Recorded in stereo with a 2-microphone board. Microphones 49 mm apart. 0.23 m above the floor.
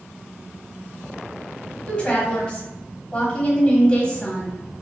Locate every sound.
1.9 s a woman speaking: 20° left (ahead or behind), 1.1 m